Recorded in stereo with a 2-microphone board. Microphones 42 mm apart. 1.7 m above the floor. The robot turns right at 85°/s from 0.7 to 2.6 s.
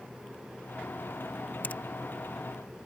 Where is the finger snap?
45° left (ahead or behind); by 1.8 s 35° left (ahead or behind).